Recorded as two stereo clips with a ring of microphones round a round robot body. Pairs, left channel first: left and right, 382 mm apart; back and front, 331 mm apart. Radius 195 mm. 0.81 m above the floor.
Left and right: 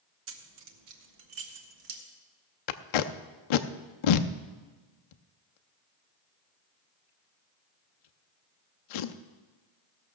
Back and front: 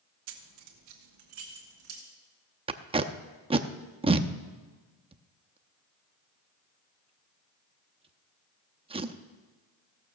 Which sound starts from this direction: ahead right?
Keys jangling, at 0.3 s.